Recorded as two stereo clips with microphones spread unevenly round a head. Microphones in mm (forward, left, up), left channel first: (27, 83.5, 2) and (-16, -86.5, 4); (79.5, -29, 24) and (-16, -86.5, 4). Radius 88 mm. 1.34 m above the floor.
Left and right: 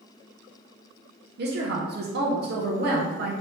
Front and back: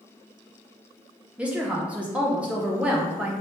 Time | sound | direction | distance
1.4 | a woman speaking | 75° right | 0.7 m